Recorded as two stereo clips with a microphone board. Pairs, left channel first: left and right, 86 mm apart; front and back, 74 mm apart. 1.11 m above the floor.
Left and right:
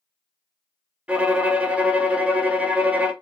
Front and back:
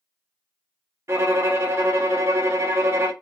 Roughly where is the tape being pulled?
No tape being pulled in this recording.